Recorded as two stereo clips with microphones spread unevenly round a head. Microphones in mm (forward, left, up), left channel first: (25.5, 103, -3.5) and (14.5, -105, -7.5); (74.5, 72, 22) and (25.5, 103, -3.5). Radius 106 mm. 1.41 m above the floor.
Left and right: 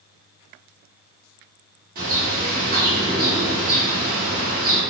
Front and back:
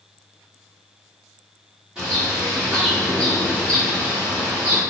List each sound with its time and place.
1.9 s a bird: 100° right, 1.1 m